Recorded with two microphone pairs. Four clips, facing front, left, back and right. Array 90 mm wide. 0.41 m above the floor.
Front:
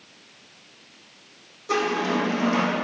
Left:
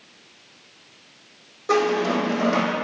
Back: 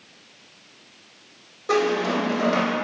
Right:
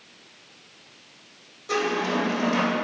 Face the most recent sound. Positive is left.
turn(degrees=130)